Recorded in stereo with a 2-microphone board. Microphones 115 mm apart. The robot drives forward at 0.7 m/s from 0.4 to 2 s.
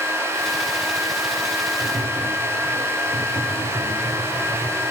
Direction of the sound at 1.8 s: 60° right (ahead or behind).